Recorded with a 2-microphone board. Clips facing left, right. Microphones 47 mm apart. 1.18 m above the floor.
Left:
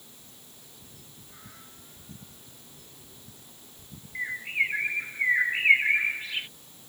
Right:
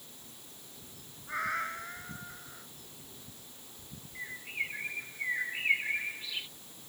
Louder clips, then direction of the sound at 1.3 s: Right 21 dB; 70° right (ahead or behind).